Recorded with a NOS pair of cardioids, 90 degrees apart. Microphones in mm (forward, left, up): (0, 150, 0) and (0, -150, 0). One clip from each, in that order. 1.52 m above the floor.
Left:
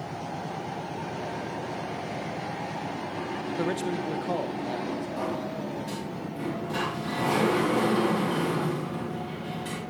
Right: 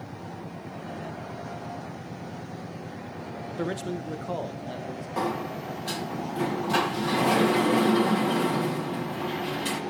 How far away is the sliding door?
About 2.5 m.